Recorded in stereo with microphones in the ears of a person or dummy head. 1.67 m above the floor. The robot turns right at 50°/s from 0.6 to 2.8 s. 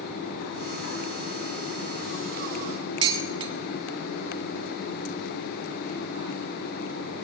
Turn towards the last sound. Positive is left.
turn(degrees=-30)  # may be behind; listen again after turning